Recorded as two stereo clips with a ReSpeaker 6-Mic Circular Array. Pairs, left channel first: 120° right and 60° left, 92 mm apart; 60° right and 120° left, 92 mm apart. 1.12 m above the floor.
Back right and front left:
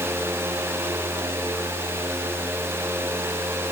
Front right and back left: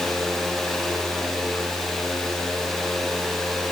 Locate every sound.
Only background noise.